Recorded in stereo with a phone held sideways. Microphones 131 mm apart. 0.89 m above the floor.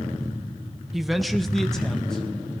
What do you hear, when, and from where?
0.9 s a man speaking: centre (ahead or behind), 0.6 m; by 2.2 s 5° left (ahead or behind), 0.8 m